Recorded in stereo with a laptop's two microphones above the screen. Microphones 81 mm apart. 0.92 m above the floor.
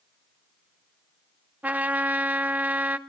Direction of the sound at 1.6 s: 20° right (ahead or behind).